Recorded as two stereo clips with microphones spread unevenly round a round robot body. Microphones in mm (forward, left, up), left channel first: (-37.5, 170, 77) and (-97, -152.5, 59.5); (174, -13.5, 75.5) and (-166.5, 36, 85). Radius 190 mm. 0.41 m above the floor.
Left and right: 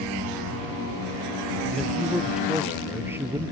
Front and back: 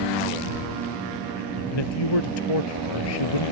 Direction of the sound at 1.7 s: 10° right.